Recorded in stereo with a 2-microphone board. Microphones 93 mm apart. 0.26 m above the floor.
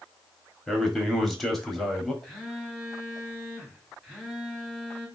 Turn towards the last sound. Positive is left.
turn(degrees=0)  # may be behind; listen again after turning